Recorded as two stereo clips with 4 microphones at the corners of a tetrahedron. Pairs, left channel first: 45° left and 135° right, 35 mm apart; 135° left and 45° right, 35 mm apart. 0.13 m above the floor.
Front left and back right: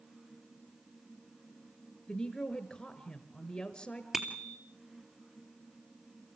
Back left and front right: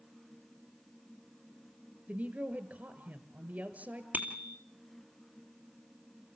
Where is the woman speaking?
25° right, 1.8 m.